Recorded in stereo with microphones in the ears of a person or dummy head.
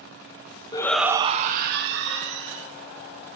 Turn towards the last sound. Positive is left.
turn(degrees=-75)  # may be behind; listen again after turning